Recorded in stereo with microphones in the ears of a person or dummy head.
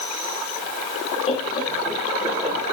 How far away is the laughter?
About 0.9 m.